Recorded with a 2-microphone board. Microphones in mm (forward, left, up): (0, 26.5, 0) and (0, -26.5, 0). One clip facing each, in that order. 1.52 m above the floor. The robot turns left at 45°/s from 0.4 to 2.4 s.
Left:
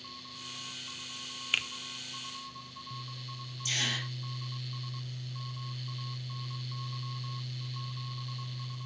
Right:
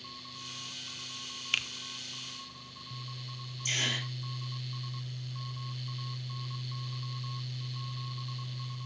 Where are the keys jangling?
No keys jangling in this recording.